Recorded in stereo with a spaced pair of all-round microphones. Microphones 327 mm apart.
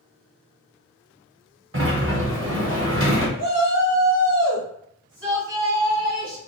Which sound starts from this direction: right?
A sliding door, at 1.7 s.